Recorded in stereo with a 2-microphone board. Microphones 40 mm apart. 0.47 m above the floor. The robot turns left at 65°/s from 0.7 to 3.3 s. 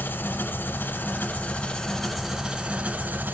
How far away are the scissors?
I don't hear scissors.